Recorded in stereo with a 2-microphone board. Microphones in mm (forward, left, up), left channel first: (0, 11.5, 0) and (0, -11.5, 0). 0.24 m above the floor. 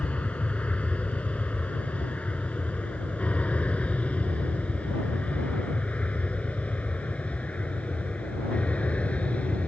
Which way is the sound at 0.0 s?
65° left (ahead or behind).